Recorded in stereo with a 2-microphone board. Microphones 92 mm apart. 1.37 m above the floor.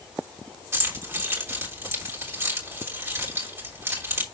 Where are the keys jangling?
30° right (ahead or behind), 3.5 m.